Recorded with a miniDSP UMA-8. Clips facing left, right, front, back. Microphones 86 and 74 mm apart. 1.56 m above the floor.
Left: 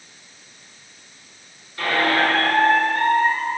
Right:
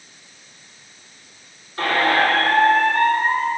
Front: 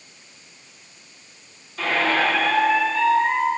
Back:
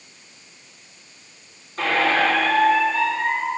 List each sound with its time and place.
1.8 s a squeak: 140° right, 2.5 m